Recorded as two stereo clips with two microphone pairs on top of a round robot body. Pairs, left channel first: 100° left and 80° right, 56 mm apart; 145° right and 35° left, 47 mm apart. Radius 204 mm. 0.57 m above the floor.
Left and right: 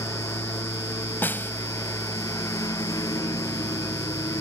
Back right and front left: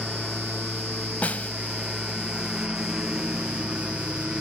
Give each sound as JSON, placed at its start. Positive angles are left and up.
{"t": 0.0, "sound": "a lawn mower", "azimuth_deg": 120}
{"t": 1.2, "sound": "a snare drum", "azimuth_deg": 155}